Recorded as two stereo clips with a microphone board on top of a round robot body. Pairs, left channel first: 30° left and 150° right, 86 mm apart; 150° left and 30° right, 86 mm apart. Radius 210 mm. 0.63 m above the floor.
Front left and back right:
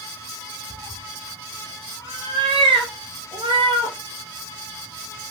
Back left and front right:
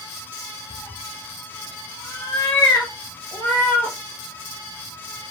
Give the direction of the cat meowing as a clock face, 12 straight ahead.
6 o'clock.